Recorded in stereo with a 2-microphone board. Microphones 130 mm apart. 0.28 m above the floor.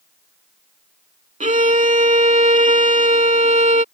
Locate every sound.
1.4 s a violin: 70° right (ahead or behind)